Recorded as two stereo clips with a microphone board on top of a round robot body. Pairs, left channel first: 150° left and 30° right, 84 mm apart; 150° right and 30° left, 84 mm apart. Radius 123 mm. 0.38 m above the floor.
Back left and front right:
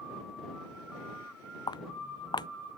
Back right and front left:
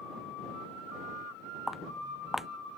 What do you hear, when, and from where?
1.7 s footsteps: 115° left